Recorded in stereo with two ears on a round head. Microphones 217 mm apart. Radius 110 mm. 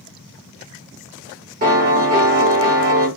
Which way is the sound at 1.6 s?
35° right (ahead or behind).